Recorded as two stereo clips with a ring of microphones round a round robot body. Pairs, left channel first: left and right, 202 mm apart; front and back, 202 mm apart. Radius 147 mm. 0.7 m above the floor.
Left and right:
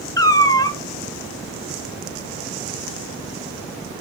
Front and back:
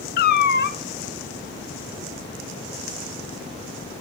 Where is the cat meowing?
20° left, 0.7 m.